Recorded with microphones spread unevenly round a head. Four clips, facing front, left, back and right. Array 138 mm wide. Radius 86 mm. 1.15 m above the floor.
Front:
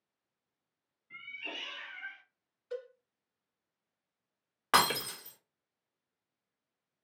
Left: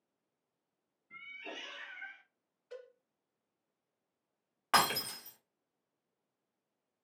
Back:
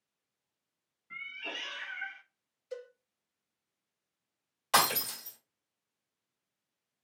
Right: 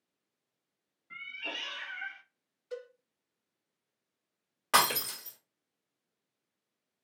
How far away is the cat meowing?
About 0.7 m.